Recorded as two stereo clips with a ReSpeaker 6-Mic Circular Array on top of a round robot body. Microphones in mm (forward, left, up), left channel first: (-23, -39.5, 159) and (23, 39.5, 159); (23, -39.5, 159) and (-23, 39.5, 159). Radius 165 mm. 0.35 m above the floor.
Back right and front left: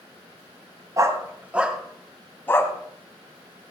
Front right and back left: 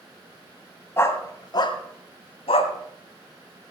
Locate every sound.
1.0 s a dog barking: 5° left, 1.6 m; by 2.7 s 60° right, 1.8 m